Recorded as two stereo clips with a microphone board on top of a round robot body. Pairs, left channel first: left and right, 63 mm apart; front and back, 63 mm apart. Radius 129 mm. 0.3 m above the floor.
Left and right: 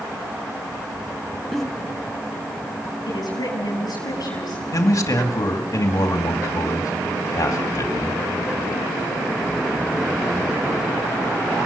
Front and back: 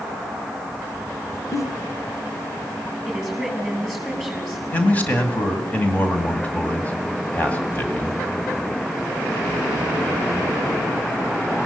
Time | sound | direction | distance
1.5 | a giggle | 5° left | 1.6 m
3.1 | a woman speaking | 90° left | 7.5 m
4.7 | a man speaking | 65° left | 2.5 m